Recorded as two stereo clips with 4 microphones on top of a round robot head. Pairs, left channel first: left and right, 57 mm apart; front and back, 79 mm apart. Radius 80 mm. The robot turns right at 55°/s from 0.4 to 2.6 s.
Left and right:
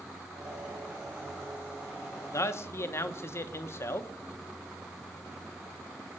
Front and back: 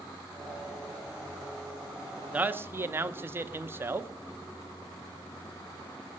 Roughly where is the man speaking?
Left.